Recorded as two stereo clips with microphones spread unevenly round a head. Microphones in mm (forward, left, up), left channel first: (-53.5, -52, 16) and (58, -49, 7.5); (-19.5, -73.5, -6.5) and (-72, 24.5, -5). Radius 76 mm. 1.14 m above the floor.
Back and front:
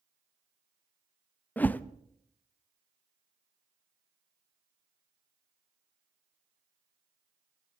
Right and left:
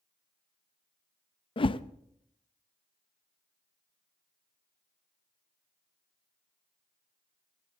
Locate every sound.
1.6 s a whoosh: 105° right, 0.7 m